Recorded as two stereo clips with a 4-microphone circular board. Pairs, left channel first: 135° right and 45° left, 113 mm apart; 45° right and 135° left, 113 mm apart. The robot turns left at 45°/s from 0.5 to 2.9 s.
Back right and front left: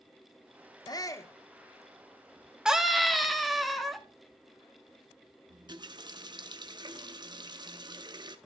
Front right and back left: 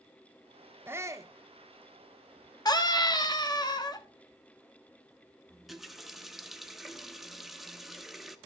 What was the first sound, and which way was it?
A shout, 165° right.